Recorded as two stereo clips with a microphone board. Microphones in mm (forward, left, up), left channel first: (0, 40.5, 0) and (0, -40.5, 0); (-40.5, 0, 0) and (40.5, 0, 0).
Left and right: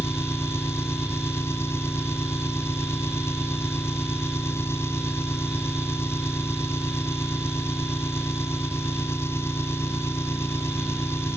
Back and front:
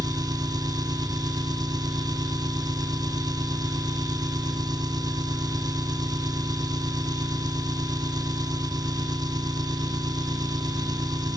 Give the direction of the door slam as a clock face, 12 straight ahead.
No door slam in this recording.